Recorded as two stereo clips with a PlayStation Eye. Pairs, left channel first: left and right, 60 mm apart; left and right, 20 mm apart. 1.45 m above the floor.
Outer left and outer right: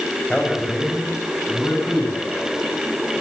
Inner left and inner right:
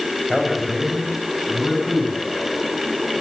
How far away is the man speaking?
About 8 m.